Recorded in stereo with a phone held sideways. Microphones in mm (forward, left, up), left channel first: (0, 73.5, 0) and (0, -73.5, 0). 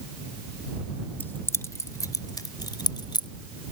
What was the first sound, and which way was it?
Keys jangling, 15° left (ahead or behind).